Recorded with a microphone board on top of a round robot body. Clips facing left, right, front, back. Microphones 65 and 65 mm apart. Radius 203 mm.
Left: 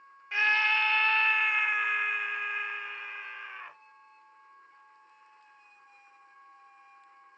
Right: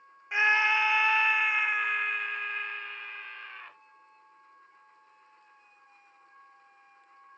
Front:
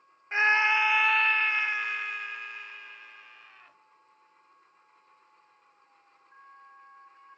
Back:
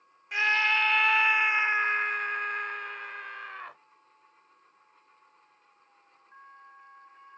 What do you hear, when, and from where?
0.3 s a scream: 30° right; by 3.8 s 165° left